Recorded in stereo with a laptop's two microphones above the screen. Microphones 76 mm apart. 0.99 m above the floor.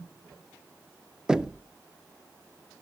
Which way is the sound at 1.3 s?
10° right (ahead or behind).